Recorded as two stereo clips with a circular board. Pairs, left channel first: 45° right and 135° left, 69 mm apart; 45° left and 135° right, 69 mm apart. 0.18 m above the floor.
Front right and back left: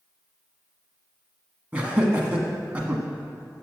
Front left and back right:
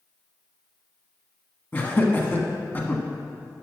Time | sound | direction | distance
1.7 | laughter | 80° left | 1.3 m